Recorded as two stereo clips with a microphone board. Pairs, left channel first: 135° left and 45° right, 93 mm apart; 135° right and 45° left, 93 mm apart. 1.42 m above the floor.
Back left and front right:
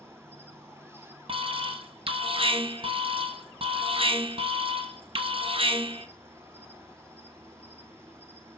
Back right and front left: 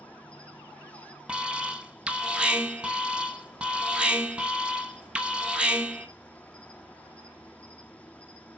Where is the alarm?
35° right, 1.3 m.